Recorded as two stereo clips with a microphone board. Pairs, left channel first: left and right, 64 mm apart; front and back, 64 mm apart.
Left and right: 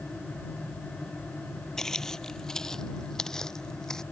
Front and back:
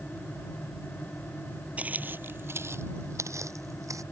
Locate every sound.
1.8 s footsteps: 160° left; by 4.0 s 170° left